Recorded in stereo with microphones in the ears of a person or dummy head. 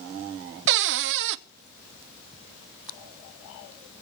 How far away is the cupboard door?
About 0.7 m.